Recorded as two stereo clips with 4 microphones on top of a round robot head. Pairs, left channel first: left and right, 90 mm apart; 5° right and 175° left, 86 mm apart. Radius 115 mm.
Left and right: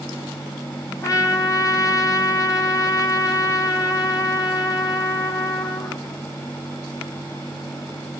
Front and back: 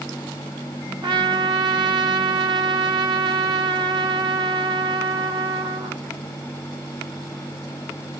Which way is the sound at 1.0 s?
145° left.